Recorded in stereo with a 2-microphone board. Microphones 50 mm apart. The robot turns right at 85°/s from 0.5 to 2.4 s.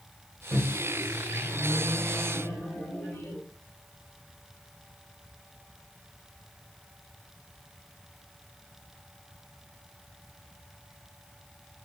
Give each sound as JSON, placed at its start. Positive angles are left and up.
{"t": 0.5, "sound": "a microwave", "azimuth_deg": -115, "distance_m": 1.4}